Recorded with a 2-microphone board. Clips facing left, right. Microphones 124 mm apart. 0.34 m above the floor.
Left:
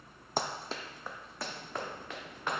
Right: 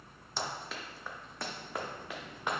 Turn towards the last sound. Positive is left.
turn(degrees=-15)  # may be behind; listen again after turning